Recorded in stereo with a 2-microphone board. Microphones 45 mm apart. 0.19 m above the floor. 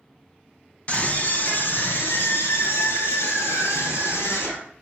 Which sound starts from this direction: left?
A scream, at 0.9 s.